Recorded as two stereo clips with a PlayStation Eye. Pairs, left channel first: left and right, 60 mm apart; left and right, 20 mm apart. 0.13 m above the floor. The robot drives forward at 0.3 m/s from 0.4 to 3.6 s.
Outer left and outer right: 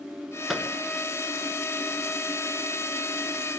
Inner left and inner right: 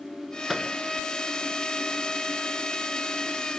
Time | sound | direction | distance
0.5 | a microwave | 5° right (ahead or behind) | 1.2 m